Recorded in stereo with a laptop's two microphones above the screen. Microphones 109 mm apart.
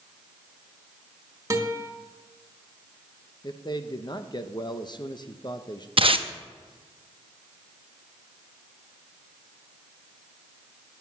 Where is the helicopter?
No helicopter in this recording.